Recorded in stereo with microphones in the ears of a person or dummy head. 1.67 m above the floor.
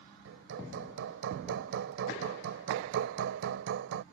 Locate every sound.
0.2 s hammering: 70° right (ahead or behind)